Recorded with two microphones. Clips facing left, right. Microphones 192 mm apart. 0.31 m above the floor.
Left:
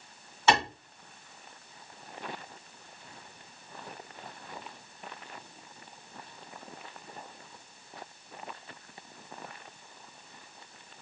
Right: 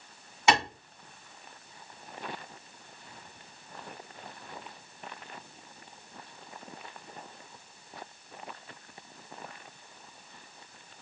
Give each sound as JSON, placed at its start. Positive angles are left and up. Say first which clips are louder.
{"t": 0.5, "sound": "a clap", "louder": "even", "side_deg": -15, "distance_m": 2.0}